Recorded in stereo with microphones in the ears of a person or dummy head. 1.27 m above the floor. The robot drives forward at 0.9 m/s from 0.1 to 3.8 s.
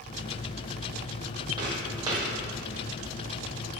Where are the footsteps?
20° right (ahead or behind), 1.9 m; by 2.2 s 15° right (ahead or behind), 2.5 m.